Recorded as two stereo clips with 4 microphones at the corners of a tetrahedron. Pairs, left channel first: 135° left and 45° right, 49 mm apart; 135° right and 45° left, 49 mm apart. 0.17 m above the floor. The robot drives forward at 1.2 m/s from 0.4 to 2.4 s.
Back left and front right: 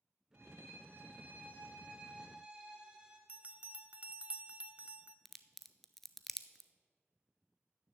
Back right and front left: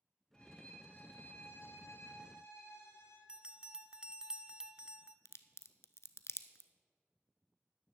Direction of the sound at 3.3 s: 15° right.